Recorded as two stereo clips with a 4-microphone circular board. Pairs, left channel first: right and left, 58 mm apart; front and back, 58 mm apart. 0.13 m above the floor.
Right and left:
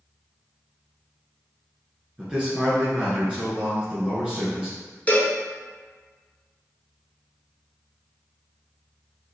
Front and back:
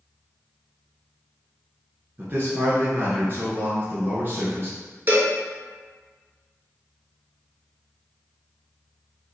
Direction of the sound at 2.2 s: 155° left.